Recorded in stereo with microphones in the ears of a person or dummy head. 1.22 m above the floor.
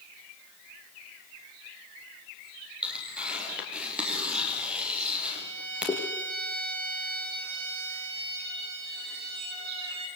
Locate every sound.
2.8 s tearing paper: 5° right (ahead or behind), 6 m
5.3 s a violin: 60° right (ahead or behind), 6 m